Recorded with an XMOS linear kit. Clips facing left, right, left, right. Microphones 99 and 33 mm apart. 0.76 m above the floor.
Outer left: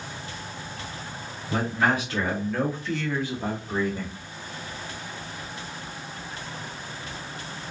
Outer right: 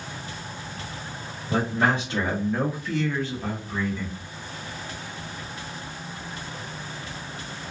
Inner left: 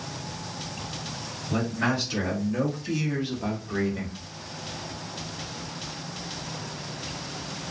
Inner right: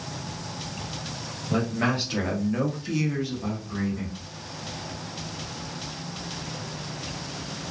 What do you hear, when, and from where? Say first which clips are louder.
1.5 s a man speaking: outer right 1 dB, inner right 1 dB; 35° right (ahead or behind), 1.4 m; by 4.1 s 50° left (ahead or behind), 0.8 m